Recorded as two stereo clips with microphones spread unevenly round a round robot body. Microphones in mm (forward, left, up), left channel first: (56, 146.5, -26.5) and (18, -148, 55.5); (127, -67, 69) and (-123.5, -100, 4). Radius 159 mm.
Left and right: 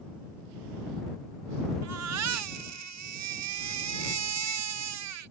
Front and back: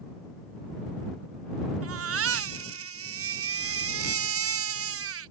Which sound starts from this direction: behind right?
A baby crying, at 1.8 s.